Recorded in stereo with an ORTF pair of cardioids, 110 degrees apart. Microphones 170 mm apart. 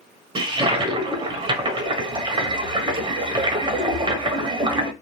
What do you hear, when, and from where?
0.3 s a toilet flushing: 25° right, 0.9 m